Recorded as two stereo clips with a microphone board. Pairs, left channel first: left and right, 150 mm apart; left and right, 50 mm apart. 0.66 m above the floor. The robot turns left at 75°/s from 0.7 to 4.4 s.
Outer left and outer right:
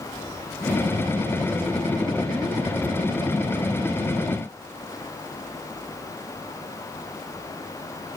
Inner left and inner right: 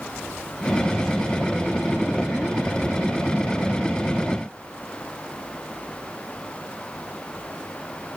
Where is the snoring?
I don't hear snoring.